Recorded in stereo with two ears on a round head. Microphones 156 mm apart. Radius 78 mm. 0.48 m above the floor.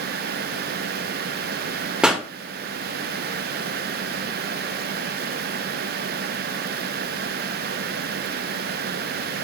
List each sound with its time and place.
2.0 s a pop: 5° right (ahead or behind), 1.6 m